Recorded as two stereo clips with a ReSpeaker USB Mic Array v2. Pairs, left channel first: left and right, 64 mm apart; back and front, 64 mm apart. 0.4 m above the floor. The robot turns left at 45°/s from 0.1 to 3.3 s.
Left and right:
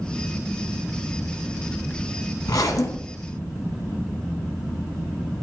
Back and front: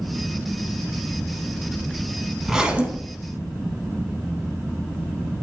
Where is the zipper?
85° left, 0.7 m; by 3.4 s 45° left, 0.7 m.